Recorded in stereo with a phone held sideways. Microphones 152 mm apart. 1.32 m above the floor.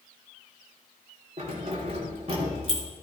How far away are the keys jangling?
About 2.5 m.